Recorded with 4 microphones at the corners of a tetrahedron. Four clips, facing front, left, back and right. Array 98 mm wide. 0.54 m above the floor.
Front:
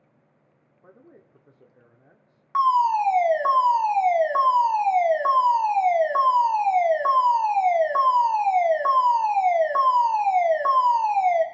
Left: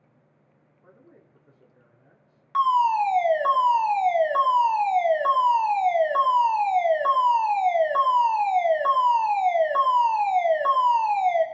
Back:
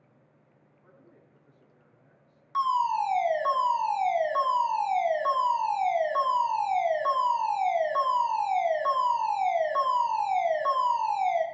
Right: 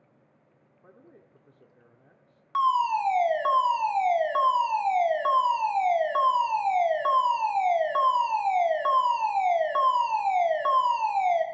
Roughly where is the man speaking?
Ahead.